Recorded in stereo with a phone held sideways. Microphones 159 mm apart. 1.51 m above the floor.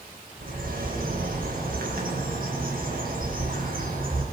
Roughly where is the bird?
Right.